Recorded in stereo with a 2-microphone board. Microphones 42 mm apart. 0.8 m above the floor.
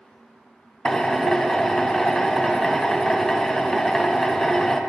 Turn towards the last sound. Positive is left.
turn(degrees=10)  # may be behind; listen again after turning